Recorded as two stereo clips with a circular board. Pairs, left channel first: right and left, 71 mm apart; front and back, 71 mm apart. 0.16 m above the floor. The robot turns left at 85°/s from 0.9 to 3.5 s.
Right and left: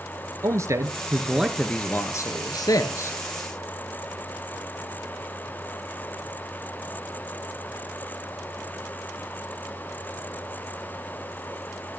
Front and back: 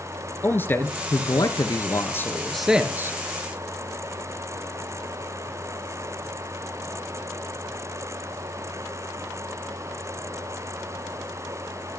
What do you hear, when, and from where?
0.4 s a man speaking: 55° left, 1.9 m; by 3.2 s 140° right, 1.9 m